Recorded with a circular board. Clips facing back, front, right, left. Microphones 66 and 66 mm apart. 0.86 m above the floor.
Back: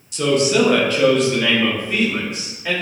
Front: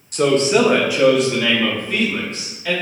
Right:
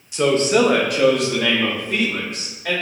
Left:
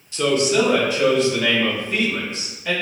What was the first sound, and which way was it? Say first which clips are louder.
A man speaking: front 2 dB, right 2 dB; 20° right.